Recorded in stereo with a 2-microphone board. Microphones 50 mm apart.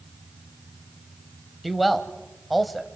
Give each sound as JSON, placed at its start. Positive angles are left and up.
{"t": 1.6, "sound": "a man speaking", "side_deg": 0, "distance_m": 1.4}